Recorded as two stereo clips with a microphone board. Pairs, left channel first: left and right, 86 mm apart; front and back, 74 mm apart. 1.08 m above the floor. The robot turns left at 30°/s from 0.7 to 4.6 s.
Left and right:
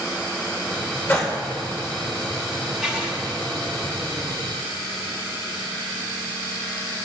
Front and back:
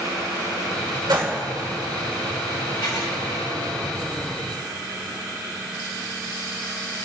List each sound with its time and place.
1.1 s a gunshot: 155° left, 2.5 m; by 1.4 s 145° left, 2.5 m
2.8 s writing: 10° right, 2.5 m; by 3.1 s 20° right, 2.5 m